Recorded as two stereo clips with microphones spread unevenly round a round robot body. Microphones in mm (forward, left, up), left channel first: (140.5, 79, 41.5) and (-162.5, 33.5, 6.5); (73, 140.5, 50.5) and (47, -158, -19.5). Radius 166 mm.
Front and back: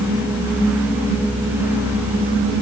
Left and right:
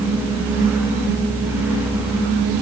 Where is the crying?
I don't hear crying.